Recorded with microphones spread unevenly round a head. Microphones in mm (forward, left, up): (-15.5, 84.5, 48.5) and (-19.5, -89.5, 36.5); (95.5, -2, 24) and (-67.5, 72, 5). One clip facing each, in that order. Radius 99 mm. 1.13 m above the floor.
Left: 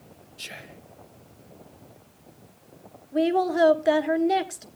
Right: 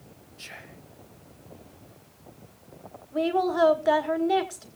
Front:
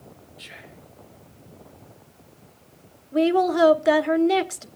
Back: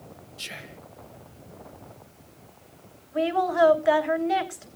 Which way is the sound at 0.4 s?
140° left.